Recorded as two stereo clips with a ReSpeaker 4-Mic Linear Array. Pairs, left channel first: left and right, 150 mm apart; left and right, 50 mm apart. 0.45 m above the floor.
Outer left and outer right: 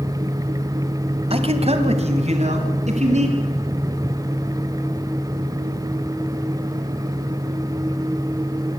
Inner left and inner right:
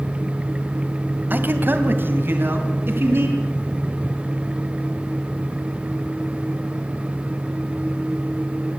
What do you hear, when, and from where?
1.3 s a man speaking: 40° right (ahead or behind), 1.9 m; by 3.4 s 50° right (ahead or behind), 4.5 m